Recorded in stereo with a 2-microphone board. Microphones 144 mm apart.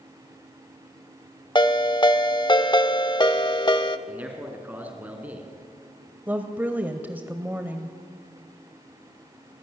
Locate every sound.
1.6 s a ringtone: 35° left (ahead or behind), 1.0 m
4.1 s a man speaking: 10° right (ahead or behind), 3.5 m
6.3 s a woman speaking: 10° right (ahead or behind), 1.2 m